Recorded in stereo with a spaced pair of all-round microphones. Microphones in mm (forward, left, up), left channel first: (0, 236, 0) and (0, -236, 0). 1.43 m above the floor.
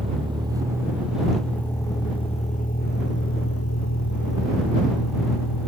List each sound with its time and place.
0.0 s a vehicle: 10° right (ahead or behind); by 5.7 s 55° left (ahead or behind)